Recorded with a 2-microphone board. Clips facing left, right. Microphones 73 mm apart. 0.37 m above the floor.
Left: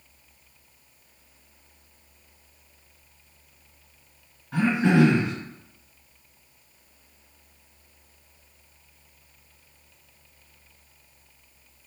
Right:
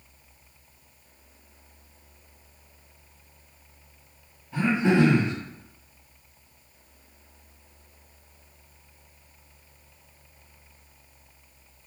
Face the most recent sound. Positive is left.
turn(degrees=80)